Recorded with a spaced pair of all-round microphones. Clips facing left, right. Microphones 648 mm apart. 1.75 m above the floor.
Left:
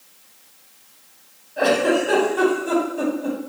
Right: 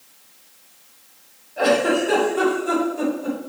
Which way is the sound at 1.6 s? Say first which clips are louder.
Even; 15° left (ahead or behind).